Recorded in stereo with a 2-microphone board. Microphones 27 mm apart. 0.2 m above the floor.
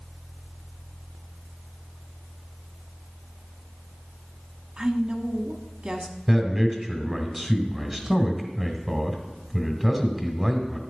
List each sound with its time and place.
4.8 s a woman speaking: 35° right (ahead or behind), 1.2 m
6.3 s a man speaking: 10° right (ahead or behind), 1.3 m